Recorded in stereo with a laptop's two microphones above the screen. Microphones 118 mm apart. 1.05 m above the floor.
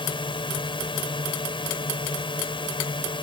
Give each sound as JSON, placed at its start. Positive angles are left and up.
{"t": 0.0, "sound": "a drone", "side_deg": 45}